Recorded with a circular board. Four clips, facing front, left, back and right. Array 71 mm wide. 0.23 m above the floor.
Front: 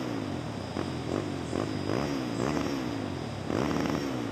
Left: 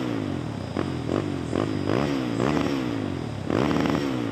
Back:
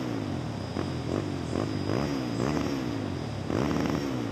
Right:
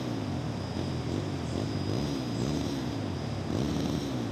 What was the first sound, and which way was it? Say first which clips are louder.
A motorcycle: left 6 dB, back 1 dB; 90° left.